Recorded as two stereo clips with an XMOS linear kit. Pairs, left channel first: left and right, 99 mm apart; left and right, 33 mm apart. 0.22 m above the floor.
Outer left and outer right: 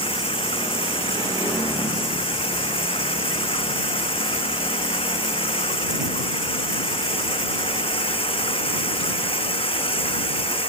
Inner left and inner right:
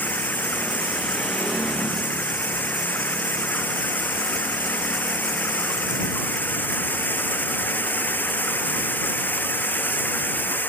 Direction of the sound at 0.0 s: 80° left.